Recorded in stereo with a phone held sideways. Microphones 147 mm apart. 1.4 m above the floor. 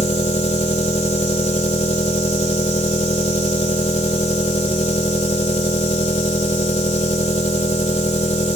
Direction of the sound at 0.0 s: 45° left (ahead or behind).